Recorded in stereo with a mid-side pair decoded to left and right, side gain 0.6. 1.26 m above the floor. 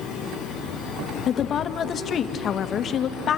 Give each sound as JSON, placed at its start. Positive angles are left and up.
{"t": 1.3, "sound": "a woman speaking", "azimuth_deg": 45, "distance_m": 1.6}